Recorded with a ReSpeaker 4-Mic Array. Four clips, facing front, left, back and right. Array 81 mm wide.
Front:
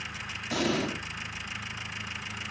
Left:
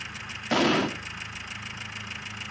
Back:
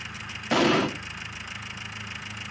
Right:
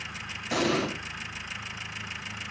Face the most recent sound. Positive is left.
turn(degrees=145)